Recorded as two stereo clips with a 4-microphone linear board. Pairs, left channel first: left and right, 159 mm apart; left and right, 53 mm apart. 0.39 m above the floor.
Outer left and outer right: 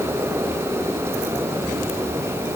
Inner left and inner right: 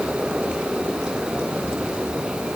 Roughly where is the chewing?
I don't hear chewing.